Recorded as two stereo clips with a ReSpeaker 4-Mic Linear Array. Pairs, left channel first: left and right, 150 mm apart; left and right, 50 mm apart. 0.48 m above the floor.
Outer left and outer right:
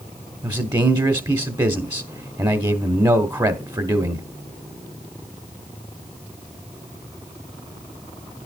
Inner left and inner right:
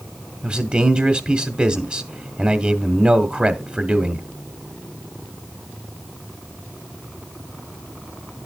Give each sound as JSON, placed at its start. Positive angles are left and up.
{"t": 0.4, "sound": "a man speaking", "side_deg": -25, "distance_m": 0.9}